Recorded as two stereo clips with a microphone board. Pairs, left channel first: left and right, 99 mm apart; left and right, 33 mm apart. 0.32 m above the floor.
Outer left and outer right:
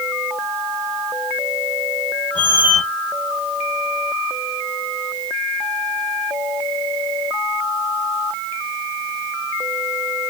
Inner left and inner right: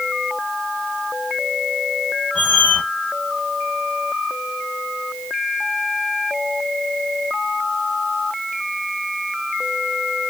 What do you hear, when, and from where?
2.4 s a squeak: 60° left (ahead or behind), 0.9 m